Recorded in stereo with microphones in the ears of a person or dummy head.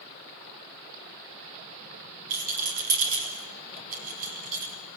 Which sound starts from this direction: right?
A rattle, at 2.3 s.